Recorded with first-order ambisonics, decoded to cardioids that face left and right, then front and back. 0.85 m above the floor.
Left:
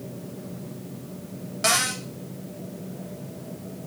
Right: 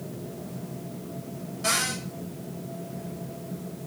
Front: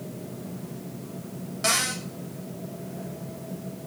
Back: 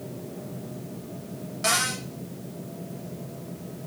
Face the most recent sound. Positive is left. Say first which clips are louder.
# left 4 dB, even
turn(degrees=85)